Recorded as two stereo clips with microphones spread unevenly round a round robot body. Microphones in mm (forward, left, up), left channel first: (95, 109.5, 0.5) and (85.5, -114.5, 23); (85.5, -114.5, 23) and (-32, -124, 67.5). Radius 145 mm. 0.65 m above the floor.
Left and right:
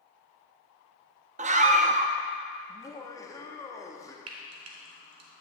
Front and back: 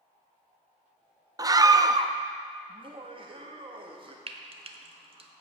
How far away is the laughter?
About 1.0 m.